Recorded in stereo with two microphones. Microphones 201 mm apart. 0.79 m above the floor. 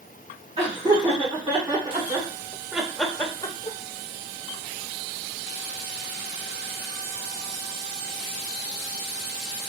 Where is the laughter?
30° right (ahead or behind), 2 m; by 3.8 s 35° left (ahead or behind), 0.6 m.